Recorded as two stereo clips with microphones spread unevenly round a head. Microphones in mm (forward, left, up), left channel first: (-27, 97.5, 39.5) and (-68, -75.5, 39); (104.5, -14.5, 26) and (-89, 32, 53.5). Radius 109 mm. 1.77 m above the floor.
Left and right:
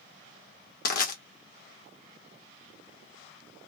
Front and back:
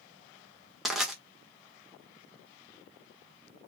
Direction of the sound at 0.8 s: 85° left.